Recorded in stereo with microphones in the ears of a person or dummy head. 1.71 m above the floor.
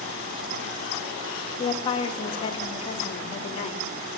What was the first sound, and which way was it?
A woman speaking, 25° left (ahead or behind).